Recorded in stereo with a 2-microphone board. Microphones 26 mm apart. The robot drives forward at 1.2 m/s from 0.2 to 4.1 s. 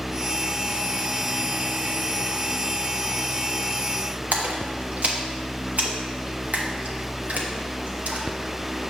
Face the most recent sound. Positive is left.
turn(degrees=-65)  # may be behind; listen again after turning